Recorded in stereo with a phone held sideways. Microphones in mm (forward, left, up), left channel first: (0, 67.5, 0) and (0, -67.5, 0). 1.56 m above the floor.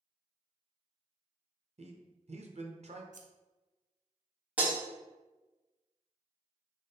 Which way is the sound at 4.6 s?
10° right (ahead or behind).